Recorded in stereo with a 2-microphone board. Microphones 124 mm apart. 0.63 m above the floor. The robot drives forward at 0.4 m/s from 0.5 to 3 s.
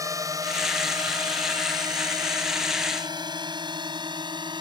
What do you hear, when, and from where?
0.0 s a drone: 25° right (ahead or behind); by 4.6 s 35° right (ahead or behind)